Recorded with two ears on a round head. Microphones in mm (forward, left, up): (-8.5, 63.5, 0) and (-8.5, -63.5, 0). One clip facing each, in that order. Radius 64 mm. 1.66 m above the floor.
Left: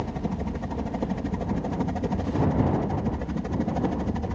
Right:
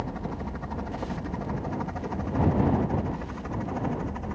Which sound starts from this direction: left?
A helicopter, at 0.0 s.